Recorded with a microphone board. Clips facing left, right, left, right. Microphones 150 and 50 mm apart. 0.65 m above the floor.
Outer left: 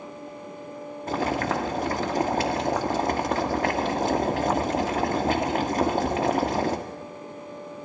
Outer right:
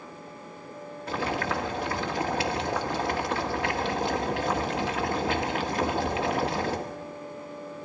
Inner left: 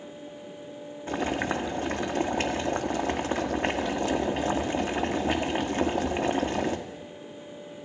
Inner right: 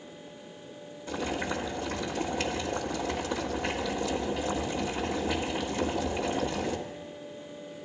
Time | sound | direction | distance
1.1 | boiling | 45° left (ahead or behind) | 1.4 m